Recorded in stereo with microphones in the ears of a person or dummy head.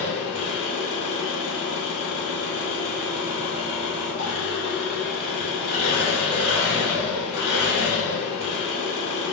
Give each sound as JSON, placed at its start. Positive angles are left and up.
{"t": 0.0, "sound": "an engine running", "side_deg": 35, "distance_m": 0.8}